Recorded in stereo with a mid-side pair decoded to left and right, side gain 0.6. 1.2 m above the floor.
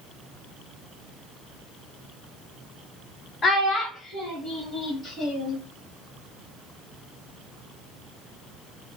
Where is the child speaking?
45° left, 0.6 m; by 5.6 s 55° left, 2.5 m.